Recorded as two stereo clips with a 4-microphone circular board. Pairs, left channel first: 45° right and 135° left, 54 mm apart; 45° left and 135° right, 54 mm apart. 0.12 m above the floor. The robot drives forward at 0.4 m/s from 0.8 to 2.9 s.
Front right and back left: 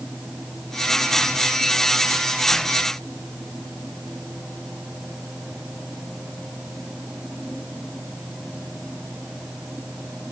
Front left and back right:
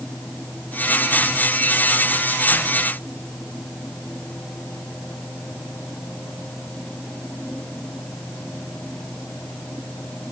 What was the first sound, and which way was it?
Only background noise.